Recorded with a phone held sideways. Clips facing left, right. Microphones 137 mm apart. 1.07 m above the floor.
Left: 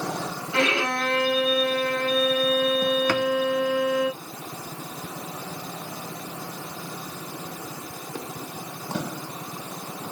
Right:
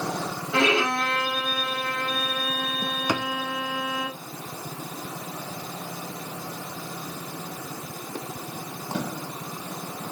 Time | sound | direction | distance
0.5 | a violin | 75° right (ahead or behind) | 5 m
3.1 | a drawer | 15° right (ahead or behind) | 1.3 m